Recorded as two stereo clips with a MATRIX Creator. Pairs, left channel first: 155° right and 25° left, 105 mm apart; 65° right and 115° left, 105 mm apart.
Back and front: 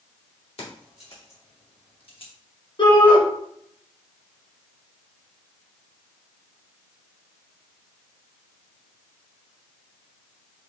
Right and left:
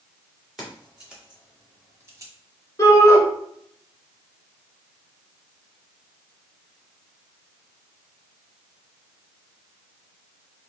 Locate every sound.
0.6 s keys jangling: 160° right, 2.5 m; by 2.3 s 165° left, 1.1 m
2.8 s a shout: 130° right, 1.7 m